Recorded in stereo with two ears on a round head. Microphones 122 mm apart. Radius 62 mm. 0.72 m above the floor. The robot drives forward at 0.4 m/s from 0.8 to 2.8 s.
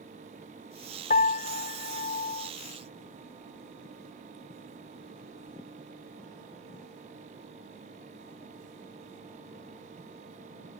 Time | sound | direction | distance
1.1 | a piano | 70° left (ahead or behind) | ?